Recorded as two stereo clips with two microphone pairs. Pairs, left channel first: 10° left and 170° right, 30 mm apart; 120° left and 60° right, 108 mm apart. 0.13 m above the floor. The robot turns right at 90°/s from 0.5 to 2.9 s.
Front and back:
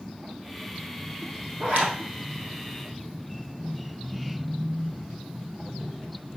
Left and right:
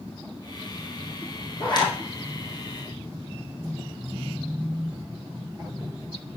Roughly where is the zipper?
Behind left.